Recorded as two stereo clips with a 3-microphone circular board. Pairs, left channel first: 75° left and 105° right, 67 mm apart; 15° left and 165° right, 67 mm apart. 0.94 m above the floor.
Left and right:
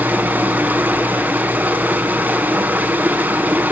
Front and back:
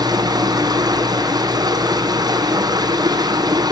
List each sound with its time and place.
0.0 s running water: 170° right, 3 m